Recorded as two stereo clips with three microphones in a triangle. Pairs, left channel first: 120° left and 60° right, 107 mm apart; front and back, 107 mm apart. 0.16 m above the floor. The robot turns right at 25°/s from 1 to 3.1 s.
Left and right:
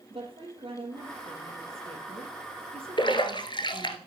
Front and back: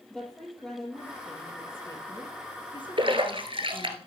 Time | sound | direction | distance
0.1 | a woman speaking | 85° right | 3.5 m
3.0 | a splash | 155° left | 1.4 m